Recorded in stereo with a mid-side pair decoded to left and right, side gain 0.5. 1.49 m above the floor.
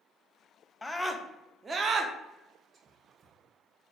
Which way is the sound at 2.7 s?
40° right.